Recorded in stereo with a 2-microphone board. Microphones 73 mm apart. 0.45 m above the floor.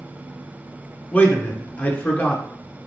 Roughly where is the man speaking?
Left.